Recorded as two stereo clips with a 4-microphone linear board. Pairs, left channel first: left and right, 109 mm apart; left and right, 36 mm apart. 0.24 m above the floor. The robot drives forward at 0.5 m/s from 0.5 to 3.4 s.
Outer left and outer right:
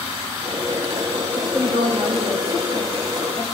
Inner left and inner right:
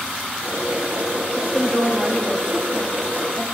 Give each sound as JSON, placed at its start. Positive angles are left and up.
{"t": 1.4, "sound": "a woman speaking", "side_deg": -55, "distance_m": 8.0}